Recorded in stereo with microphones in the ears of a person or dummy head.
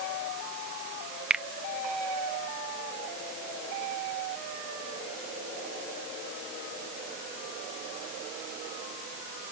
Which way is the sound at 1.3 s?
Centre (ahead or behind).